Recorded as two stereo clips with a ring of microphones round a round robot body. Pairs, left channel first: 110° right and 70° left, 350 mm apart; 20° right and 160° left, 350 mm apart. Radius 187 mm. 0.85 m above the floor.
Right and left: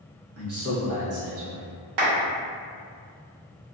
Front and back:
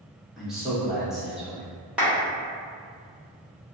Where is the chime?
I don't hear a chime.